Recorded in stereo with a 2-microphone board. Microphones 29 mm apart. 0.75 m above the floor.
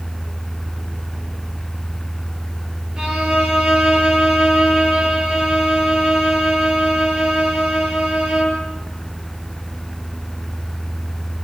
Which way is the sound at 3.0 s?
35° right (ahead or behind).